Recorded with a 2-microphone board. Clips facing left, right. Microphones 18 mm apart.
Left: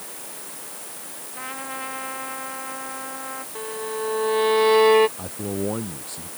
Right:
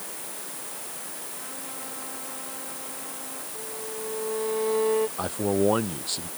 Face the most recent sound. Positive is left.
turn(degrees=-55)  # may be behind; listen again after turning